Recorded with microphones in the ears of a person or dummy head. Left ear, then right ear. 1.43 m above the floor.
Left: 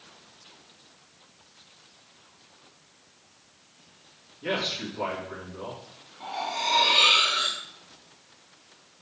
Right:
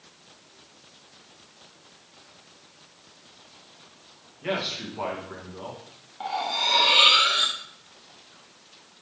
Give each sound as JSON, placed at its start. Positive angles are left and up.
{"t": 4.4, "sound": "a man speaking", "side_deg": -25, "distance_m": 1.7}
{"t": 6.2, "sound": "cutlery clinking", "side_deg": -35, "distance_m": 0.7}